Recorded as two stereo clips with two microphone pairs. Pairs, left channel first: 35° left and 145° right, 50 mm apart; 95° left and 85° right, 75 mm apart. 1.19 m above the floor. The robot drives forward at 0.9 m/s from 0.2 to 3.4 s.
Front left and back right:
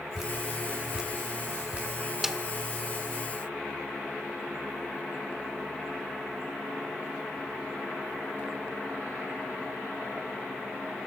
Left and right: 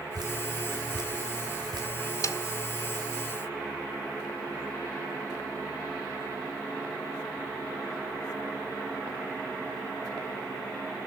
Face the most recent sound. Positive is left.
turn(degrees=155)